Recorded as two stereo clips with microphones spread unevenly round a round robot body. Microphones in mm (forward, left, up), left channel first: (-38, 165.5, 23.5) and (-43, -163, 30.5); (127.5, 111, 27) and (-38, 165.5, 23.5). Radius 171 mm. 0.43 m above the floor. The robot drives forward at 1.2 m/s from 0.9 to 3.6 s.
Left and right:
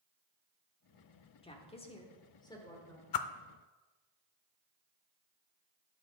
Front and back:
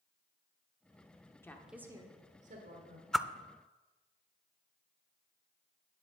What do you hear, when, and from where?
1.4 s a woman speaking: 45° left, 1.1 m; by 3.0 s 170° left, 1.9 m
3.1 s a whoosh: 70° left, 0.6 m; by 3.3 s 85° left, 0.6 m